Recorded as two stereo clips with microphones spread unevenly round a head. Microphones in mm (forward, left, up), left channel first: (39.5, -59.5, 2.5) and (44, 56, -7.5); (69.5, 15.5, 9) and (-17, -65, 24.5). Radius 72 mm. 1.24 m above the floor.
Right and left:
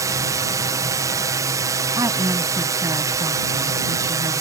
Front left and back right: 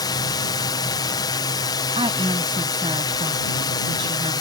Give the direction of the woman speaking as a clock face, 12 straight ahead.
7 o'clock.